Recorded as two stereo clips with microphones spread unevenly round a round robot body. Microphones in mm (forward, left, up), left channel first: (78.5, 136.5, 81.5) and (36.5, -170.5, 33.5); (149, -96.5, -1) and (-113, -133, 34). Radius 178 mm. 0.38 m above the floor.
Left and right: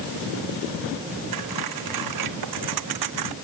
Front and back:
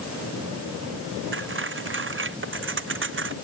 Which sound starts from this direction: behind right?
Cutlery clinking, at 1.3 s.